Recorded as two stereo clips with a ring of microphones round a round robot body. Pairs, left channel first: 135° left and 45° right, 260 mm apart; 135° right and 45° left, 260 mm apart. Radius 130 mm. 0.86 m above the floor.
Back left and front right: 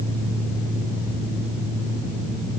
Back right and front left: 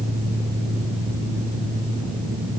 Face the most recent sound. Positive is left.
No sound to turn to.